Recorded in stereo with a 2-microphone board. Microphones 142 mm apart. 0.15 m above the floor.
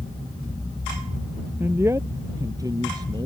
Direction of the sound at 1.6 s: 15° right (ahead or behind).